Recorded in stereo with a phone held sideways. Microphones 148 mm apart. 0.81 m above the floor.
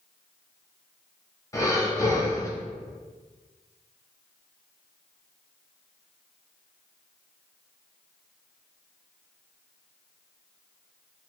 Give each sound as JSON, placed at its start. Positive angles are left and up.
{"t": 1.5, "sound": "breathing", "side_deg": 20, "distance_m": 0.8}